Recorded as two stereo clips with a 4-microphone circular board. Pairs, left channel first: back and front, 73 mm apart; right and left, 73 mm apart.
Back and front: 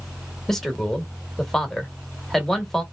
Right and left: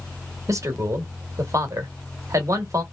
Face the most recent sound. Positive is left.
turn(degrees=95)